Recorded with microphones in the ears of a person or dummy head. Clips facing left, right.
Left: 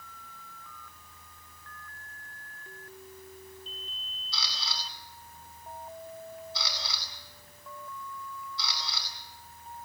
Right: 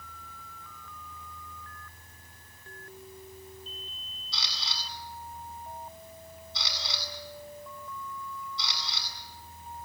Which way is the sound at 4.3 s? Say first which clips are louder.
Left 2 dB; 5° left (ahead or behind).